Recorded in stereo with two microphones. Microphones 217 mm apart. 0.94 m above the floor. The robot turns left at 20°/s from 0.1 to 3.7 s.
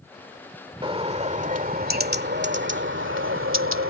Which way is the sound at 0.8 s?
25° right.